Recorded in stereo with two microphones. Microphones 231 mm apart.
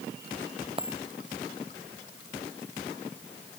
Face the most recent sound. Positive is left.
turn(degrees=-25)  # may be behind; listen again after turning